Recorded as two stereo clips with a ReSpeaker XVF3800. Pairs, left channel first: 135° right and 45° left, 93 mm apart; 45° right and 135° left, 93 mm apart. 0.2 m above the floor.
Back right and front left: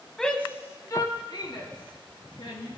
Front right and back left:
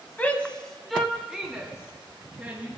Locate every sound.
0.2 s a shout: 60° right, 1.0 m; by 2.7 s 150° right, 2.5 m